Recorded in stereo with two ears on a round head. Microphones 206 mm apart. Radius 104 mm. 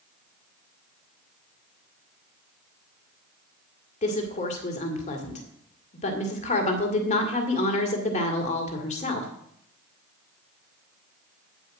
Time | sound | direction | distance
4.0 | a woman speaking | 30° left (ahead or behind) | 2 m